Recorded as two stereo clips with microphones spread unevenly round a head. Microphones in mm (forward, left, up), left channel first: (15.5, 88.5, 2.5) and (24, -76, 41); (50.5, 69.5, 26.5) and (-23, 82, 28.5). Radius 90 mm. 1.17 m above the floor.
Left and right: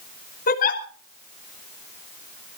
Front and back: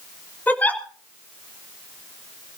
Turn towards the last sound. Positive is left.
turn(degrees=55)